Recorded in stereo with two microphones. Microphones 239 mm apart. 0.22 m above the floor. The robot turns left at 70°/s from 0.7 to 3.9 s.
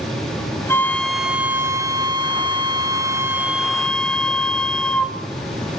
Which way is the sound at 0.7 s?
10° left (ahead or behind).